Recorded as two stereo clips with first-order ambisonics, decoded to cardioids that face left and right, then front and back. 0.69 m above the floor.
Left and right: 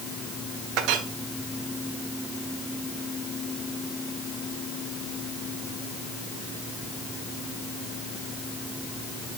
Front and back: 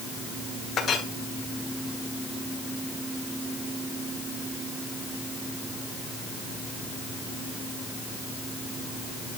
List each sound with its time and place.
0.8 s a clink: 60° right, 1.5 m